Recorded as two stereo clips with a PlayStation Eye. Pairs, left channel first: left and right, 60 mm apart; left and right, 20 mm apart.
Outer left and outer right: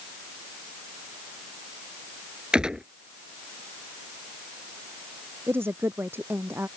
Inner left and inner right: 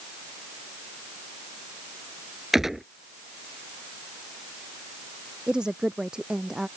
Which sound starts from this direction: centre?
A gunshot, at 2.5 s.